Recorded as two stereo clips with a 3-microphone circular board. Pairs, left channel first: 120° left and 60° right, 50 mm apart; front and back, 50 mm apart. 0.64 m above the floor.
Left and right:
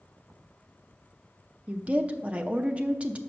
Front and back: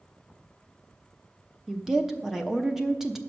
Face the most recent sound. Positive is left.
turn(degrees=-100)